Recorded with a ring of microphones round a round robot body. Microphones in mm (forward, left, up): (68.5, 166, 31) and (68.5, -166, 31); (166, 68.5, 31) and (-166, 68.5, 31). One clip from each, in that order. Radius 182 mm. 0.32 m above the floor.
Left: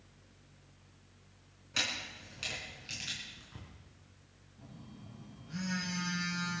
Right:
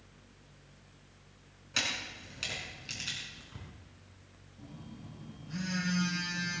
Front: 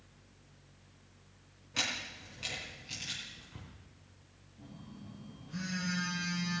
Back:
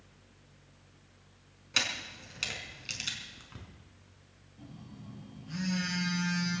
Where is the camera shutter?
175° right, 4 m.